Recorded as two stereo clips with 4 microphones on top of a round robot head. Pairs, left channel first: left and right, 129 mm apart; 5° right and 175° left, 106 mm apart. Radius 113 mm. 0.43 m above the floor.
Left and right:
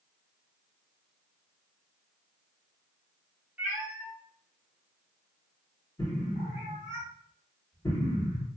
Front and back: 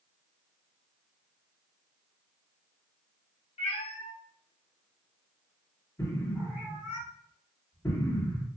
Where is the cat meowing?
15° right, 0.9 m; by 7.0 s 115° left, 1.3 m.